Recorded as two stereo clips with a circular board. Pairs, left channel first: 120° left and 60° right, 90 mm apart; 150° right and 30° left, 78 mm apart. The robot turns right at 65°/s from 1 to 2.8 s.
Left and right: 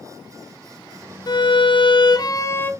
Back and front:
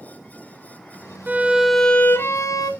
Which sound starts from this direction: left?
A violin, at 1.3 s.